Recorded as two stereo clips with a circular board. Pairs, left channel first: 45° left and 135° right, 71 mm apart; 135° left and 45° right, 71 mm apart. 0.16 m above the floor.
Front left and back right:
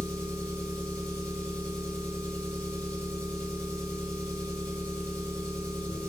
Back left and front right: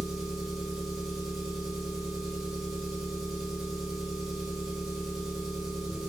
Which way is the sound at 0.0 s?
30° left.